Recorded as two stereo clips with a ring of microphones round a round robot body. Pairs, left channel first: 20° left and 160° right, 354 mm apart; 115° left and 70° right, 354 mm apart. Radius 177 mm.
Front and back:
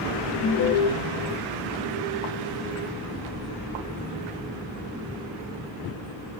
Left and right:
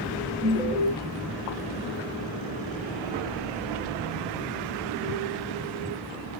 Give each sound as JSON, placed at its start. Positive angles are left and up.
{"t": 0.4, "sound": "an alarm", "azimuth_deg": 10, "distance_m": 0.8}